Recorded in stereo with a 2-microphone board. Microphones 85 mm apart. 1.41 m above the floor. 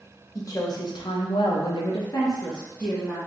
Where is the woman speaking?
40° left (ahead or behind), 0.8 m; by 3.2 s 25° left (ahead or behind), 1.1 m.